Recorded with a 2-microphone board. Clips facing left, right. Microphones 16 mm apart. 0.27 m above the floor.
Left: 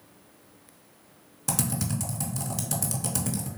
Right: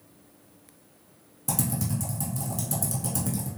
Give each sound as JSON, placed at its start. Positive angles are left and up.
{"t": 1.5, "sound": "typing on a keyboard", "side_deg": 35, "distance_m": 0.7}